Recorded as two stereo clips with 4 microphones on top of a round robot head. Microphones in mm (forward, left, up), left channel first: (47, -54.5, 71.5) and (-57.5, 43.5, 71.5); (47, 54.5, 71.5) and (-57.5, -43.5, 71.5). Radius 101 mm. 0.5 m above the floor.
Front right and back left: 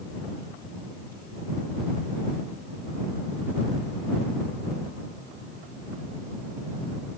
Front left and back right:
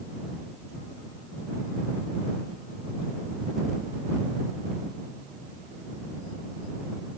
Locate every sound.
Only background noise.